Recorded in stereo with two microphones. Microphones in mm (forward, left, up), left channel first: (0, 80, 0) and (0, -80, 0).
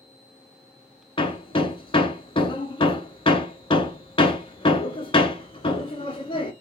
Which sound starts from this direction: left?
Hammering, at 1.2 s.